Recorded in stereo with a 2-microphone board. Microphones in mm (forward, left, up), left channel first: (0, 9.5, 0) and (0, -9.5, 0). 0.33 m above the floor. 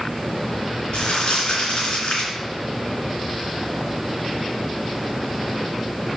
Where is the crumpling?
75° left (ahead or behind), 3 m.